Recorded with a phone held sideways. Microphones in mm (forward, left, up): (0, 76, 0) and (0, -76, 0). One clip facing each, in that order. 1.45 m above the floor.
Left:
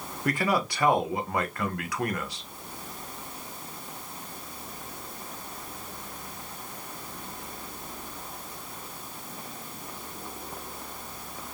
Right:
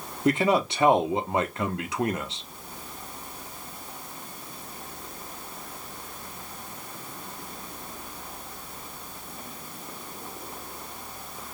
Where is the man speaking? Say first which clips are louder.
Right 5 dB; 25° right (ahead or behind), 1.2 m.